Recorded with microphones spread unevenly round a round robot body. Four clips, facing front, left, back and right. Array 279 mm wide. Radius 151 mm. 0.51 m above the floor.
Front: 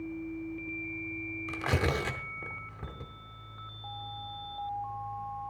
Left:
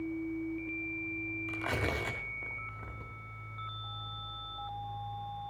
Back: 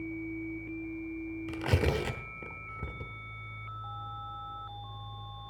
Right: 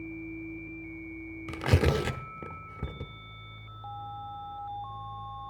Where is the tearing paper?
100° right, 1.0 m.